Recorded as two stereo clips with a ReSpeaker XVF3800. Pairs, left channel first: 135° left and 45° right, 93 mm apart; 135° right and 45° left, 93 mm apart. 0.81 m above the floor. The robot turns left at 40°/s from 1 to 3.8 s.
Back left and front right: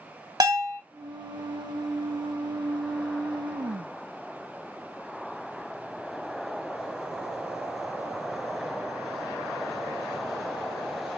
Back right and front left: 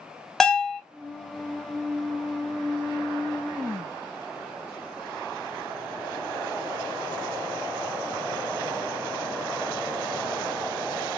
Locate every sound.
0.4 s a bell: 50° right, 0.9 m